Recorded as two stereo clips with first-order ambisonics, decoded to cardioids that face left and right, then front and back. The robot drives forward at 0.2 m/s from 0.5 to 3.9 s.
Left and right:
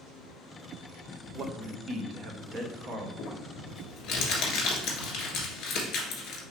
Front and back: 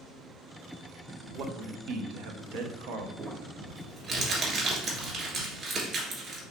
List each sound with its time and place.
1.4 s a man speaking: 145° right, 0.7 m; by 3.1 s 155° right, 0.9 m
3.2 s crumpling: 120° left, 1.5 m; by 6.4 s 125° left, 1.5 m